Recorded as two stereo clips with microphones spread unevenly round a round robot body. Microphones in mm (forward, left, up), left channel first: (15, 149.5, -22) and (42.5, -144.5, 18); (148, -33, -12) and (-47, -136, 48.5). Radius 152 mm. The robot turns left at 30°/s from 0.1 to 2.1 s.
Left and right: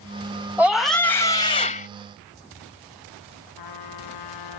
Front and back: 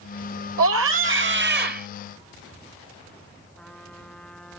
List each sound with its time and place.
0.6 s a scream: 175° right; by 1.9 s 145° left
3.6 s a trumpet: 115° left